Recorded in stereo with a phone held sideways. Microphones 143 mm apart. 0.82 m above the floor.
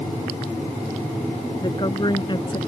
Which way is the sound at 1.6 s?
30° left (ahead or behind).